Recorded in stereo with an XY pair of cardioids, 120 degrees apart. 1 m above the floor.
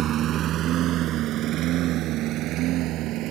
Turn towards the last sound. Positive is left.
turn(degrees=-80)